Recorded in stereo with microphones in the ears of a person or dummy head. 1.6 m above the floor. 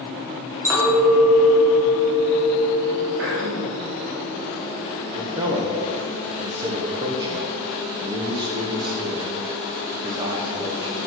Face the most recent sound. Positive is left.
turn(degrees=-30)  # may be behind; listen again after turning